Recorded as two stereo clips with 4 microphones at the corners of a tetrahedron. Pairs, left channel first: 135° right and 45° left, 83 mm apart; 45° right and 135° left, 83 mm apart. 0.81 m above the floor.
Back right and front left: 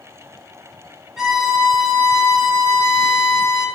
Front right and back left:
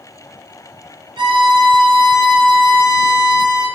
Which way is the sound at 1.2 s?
130° left.